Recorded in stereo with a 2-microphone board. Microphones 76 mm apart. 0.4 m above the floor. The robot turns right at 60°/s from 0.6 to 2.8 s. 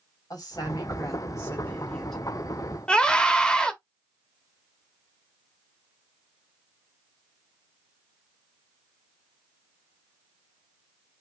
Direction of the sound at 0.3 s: 85° left.